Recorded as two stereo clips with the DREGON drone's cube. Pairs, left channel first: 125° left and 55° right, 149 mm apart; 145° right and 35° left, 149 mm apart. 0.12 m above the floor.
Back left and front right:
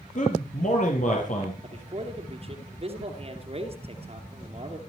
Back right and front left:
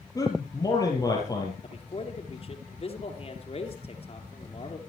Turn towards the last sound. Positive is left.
turn(degrees=-100)